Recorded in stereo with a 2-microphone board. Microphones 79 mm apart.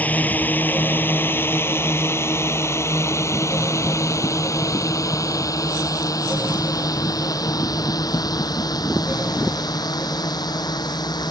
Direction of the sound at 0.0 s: 20° left (ahead or behind).